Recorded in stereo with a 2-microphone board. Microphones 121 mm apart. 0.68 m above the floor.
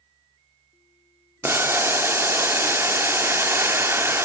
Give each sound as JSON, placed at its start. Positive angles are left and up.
{"t": 1.4, "sound": "boiling", "side_deg": -20, "distance_m": 0.7}